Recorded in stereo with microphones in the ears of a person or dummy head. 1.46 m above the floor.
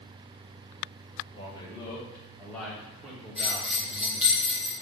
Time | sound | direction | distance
1.3 | a man speaking | 25° left (ahead or behind) | 1.9 m
3.4 | a bell | 5° right (ahead or behind) | 1.3 m